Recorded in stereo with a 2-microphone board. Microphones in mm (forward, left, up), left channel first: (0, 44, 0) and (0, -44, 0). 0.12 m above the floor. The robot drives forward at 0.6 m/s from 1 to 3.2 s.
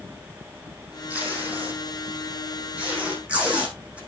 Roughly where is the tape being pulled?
Centre.